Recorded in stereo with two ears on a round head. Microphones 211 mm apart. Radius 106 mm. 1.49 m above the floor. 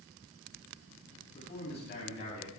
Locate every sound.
1.3 s a man speaking: 45° left (ahead or behind), 9.5 m